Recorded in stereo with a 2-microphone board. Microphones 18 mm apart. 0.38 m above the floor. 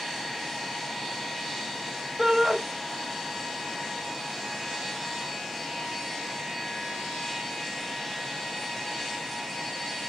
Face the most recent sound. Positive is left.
turn(degrees=-15)  # may be behind; listen again after turning